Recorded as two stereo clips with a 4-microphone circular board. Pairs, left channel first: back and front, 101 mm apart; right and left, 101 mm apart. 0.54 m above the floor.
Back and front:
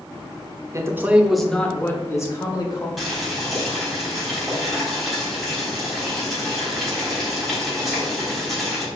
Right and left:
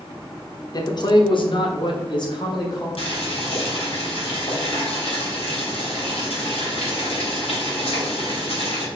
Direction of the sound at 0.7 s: 50° right.